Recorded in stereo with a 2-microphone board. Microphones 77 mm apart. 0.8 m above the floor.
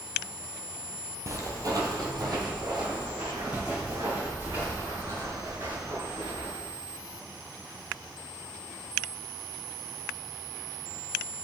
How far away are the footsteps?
About 1.2 m.